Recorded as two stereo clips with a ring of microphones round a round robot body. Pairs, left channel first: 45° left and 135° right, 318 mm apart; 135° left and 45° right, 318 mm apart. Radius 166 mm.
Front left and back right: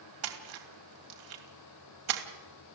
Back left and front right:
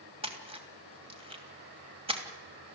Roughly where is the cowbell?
I don't hear a cowbell.